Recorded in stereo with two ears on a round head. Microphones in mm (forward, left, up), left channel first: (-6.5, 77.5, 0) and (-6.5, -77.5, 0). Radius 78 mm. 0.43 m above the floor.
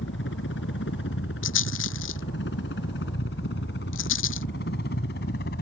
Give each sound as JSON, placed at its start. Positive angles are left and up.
{"t": 0.0, "sound": "a helicopter", "side_deg": 75}
{"t": 1.4, "sound": "a rattle", "side_deg": 85}